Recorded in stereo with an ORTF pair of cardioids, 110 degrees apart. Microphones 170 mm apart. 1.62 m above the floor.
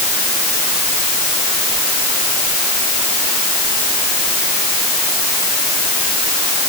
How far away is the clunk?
No clunk in this recording.